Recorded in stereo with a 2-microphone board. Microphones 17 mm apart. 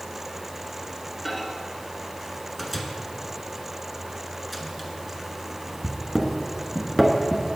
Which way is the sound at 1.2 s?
Centre (ahead or behind).